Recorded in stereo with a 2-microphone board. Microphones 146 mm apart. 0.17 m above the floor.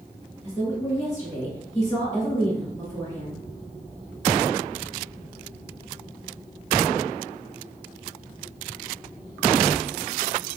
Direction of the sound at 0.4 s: 20° left (ahead or behind).